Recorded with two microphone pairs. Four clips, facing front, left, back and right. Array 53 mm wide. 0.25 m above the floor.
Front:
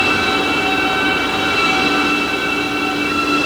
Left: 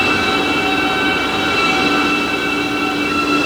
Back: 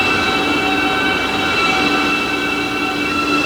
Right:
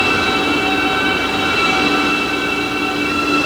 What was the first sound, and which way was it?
Only background noise.